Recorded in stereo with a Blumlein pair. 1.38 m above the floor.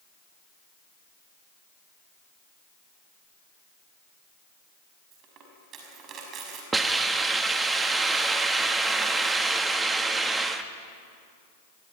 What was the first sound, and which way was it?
A dropped coin, 30° right.